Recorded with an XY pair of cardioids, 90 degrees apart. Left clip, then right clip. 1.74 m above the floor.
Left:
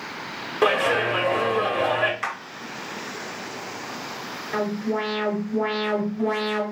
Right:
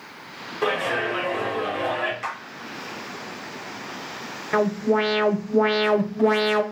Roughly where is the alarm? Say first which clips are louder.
Right 5 dB; ahead right.